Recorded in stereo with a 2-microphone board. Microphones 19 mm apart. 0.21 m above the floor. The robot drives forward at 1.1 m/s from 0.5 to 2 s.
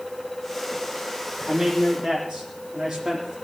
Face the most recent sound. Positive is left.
turn(degrees=-30)  # may be behind; listen again after turning